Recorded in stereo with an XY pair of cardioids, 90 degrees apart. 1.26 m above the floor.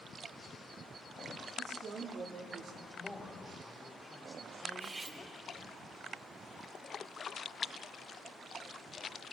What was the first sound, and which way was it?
A woman speaking, 65° right.